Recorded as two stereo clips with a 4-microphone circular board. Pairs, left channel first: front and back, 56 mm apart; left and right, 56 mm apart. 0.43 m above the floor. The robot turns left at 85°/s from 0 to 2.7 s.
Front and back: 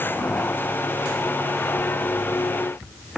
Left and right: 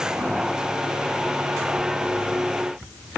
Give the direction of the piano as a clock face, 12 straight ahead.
No piano in this recording.